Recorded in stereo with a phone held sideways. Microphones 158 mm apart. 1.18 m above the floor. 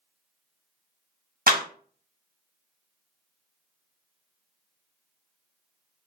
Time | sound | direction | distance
1.5 | a clap | 65° right (ahead or behind) | 0.8 m